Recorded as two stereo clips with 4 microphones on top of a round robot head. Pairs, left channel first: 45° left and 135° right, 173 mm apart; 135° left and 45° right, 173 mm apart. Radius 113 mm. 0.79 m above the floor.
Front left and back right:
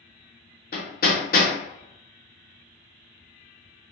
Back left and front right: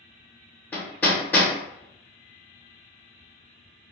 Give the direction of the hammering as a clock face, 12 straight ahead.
10 o'clock.